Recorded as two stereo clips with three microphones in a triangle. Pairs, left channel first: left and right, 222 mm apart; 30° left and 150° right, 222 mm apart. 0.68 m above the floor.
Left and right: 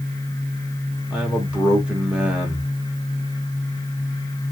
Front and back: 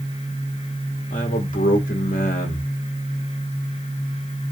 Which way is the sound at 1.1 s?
5° right.